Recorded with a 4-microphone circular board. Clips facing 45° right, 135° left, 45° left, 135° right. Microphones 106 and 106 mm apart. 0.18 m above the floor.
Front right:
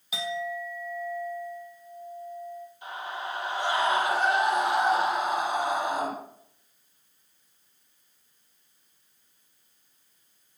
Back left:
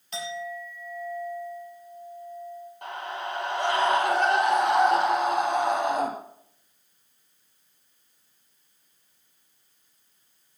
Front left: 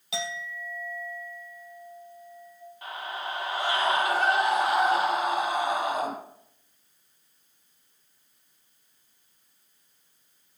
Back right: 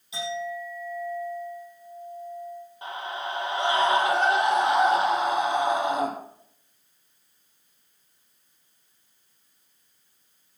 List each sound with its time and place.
0.1 s a clink: 35° left, 3.5 m
2.8 s a scream: 160° left, 5 m